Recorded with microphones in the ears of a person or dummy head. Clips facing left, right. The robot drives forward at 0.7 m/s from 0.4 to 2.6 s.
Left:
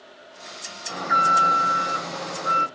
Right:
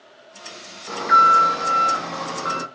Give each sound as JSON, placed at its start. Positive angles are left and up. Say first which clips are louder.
{"t": 0.9, "sound": "an alarm", "louder": "right 4 dB", "side_deg": -85, "distance_m": 2.0}